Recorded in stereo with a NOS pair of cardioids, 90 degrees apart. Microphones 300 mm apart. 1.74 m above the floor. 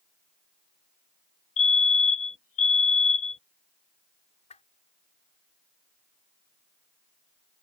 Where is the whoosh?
20° left.